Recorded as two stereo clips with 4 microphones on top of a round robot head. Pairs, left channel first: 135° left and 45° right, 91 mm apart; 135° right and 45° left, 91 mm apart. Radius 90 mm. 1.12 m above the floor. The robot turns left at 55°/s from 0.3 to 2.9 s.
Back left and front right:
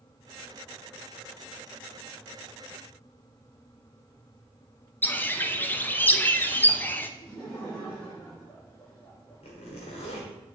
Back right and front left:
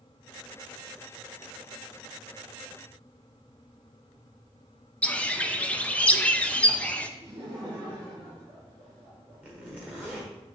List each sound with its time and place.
5.0 s a bird: 170° left, 0.6 m
7.2 s laughter: 75° left, 2 m
9.4 s a zipper: 120° left, 1.2 m